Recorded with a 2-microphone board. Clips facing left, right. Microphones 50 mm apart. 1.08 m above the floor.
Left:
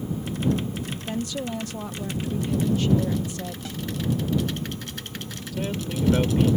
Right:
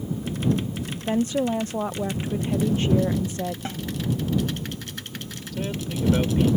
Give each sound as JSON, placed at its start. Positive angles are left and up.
{"t": 1.1, "sound": "a woman speaking", "side_deg": -35}
{"t": 3.6, "sound": "a snare drum", "side_deg": -35}
{"t": 5.5, "sound": "a man speaking", "side_deg": 5}